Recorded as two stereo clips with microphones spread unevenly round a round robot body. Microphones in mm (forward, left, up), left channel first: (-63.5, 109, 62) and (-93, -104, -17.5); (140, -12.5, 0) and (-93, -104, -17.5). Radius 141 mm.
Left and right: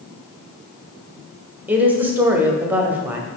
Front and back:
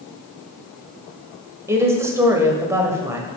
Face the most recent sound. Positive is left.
turn(degrees=-95)